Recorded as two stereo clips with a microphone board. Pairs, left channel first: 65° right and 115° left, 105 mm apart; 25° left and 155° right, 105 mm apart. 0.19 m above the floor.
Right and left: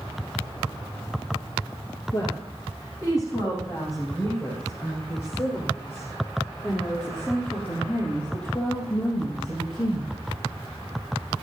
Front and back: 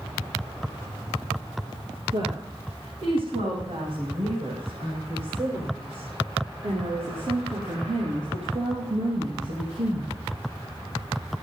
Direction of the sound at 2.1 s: 120° right.